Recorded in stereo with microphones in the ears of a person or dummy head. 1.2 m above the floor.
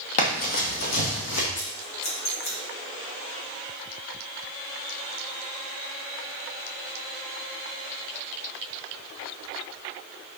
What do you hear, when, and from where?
0.2 s running footsteps: 30° left (ahead or behind), 1.5 m; by 1.4 s 60° left (ahead or behind), 2.5 m
1.6 s scissors: 50° left (ahead or behind), 2 m